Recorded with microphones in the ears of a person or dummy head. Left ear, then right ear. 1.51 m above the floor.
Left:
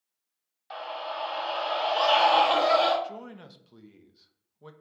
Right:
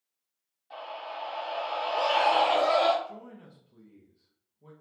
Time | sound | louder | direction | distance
0.7 | a scream | left 4 dB | 65° left (ahead or behind) | 1.2 m
3.0 | a man speaking | left 4 dB | 55° left (ahead or behind) | 0.6 m